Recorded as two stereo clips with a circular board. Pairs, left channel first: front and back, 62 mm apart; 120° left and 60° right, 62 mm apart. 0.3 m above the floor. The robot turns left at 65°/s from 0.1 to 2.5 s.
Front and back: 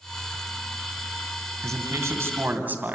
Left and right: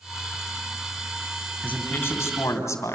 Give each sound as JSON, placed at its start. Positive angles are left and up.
{"t": 1.6, "sound": "a man speaking", "azimuth_deg": -175, "distance_m": 2.0}